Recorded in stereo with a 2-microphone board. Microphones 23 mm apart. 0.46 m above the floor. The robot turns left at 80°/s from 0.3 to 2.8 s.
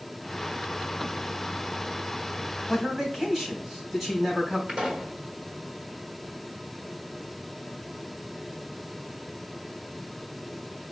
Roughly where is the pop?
Right.